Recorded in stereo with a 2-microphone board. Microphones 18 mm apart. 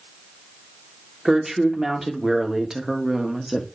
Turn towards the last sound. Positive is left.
turn(degrees=-20)  # may be behind; listen again after turning